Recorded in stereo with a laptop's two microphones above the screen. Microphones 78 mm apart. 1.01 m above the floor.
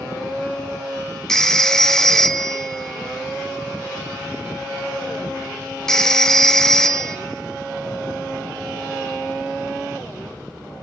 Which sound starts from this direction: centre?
A phone ringing, at 1.3 s.